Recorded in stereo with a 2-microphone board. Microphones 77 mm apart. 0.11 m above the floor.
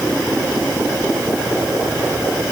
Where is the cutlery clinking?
No cutlery clinking in this recording.